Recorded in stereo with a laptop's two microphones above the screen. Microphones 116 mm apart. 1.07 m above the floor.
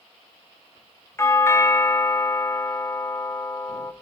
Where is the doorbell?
20° left (ahead or behind), 1.3 m.